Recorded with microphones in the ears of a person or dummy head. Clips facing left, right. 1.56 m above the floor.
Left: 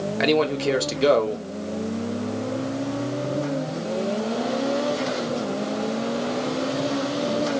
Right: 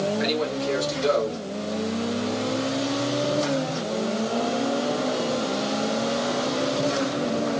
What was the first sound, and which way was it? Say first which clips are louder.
A man speaking: left 4 dB; 80° left.